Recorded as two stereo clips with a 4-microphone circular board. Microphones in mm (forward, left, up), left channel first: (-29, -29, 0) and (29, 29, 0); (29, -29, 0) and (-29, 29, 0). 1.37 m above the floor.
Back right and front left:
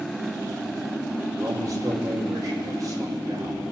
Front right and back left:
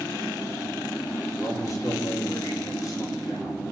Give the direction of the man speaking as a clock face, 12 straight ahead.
12 o'clock.